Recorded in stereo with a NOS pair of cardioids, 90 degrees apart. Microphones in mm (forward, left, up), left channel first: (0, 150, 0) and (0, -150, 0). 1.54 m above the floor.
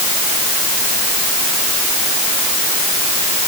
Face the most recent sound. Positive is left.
No sound to turn to.